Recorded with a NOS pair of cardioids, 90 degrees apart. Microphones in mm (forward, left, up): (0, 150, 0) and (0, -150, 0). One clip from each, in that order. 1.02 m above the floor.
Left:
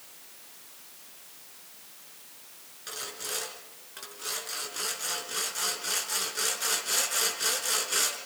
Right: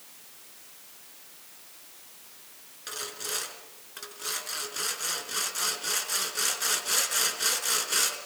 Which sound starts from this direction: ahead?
Sawing, at 2.9 s.